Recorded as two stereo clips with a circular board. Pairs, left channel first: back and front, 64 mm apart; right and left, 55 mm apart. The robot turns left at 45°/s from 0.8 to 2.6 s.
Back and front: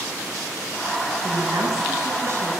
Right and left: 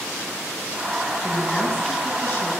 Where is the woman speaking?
Straight ahead, 6.5 m; by 2.6 s 65° right, 6.5 m.